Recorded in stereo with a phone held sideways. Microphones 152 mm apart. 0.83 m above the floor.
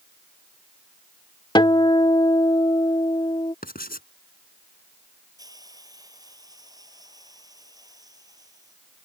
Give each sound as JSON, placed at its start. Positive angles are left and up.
{"t": 1.6, "sound": "a guitar", "side_deg": 30}
{"t": 3.6, "sound": "writing", "side_deg": 80}
{"t": 5.4, "sound": "a hiss", "side_deg": -25}